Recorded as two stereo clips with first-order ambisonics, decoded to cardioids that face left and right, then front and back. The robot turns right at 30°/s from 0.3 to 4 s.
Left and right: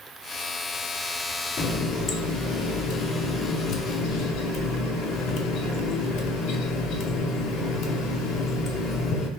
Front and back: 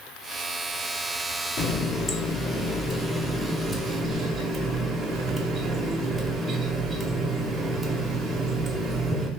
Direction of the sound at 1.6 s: 35° left.